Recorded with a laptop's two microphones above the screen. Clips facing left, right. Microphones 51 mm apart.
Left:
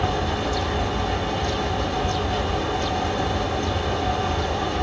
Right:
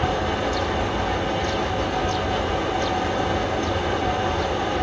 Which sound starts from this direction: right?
A fan, at 0.0 s.